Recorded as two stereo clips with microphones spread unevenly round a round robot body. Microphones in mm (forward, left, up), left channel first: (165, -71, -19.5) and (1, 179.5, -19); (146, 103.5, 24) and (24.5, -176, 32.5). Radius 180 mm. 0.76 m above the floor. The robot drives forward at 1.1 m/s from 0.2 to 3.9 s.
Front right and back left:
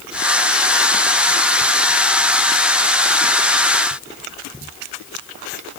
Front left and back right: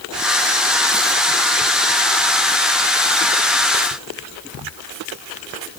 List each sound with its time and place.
Only background noise.